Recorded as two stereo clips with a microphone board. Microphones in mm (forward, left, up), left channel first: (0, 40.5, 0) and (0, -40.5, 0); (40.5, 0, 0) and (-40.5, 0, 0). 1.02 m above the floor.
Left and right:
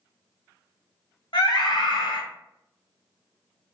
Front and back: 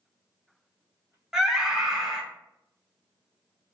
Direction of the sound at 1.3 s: 95° left.